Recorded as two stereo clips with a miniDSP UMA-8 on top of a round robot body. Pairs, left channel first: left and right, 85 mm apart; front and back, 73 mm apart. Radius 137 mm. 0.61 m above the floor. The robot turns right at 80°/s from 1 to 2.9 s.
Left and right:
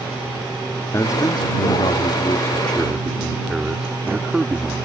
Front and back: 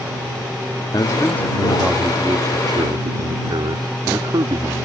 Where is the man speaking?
35° left; by 4.9 s 175° right.